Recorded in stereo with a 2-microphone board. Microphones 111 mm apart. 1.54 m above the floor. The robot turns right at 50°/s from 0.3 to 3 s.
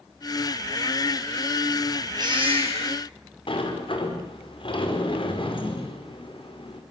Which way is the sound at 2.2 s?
145° right.